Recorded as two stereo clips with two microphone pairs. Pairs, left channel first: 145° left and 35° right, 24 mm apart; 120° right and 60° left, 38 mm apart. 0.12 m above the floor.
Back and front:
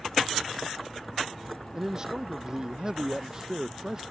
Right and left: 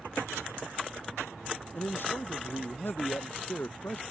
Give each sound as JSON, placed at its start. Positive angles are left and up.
{"t": 1.7, "sound": "a man speaking", "azimuth_deg": -95}